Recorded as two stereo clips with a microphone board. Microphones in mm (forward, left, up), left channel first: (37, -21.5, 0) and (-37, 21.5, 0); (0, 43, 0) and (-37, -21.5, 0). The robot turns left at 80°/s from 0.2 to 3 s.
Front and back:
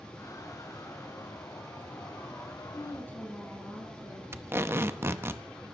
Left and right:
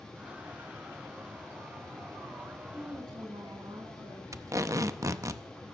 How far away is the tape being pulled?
About 0.7 m.